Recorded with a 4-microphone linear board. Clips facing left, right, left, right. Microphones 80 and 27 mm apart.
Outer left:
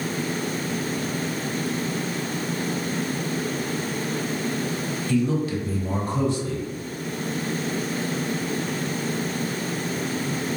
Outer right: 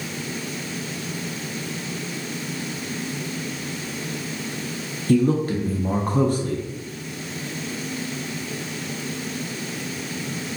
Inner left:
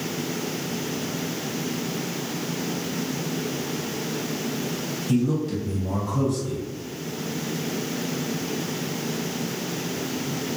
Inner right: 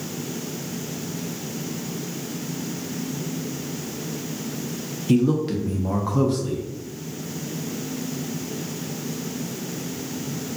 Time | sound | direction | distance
5.1 | a man speaking | 45° right (ahead or behind) | 0.5 m